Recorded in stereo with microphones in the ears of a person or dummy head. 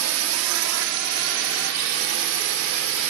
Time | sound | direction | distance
0.0 | a drone | 85° right | ?